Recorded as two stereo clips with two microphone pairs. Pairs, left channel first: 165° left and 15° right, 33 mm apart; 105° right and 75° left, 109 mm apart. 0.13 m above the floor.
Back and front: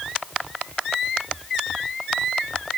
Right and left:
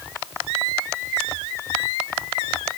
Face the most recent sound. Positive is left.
No sound to turn to.